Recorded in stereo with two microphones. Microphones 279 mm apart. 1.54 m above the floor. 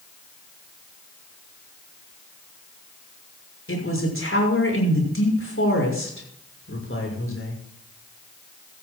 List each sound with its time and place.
3.7 s a man speaking: 55° left (ahead or behind), 6.5 m